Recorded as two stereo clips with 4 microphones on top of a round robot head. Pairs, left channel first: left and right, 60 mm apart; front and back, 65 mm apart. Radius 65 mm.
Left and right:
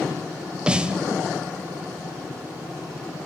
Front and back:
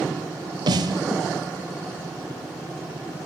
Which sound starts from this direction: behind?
A snare drum, at 0.7 s.